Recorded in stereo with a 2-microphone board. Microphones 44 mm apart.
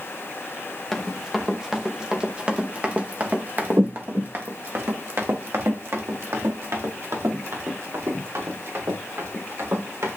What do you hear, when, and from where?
0.9 s running footsteps: centre (ahead or behind), 3 m; by 10.2 s 85° right, 7 m